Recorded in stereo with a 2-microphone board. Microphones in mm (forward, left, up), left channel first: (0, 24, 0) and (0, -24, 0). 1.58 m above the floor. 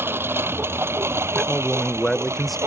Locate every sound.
0.0 s a lawn mower: 55° right (ahead or behind); by 2.7 s 75° right (ahead or behind)
1.4 s a man speaking: 5° left (ahead or behind)